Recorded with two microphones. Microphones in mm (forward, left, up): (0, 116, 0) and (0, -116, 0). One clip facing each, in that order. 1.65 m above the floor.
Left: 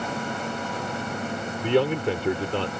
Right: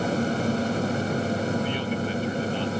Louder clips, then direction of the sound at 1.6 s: Left 5 dB; 75° left (ahead or behind).